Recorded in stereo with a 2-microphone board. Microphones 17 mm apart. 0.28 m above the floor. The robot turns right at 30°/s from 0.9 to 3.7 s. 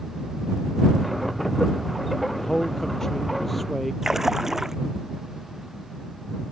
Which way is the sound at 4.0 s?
25° right (ahead or behind).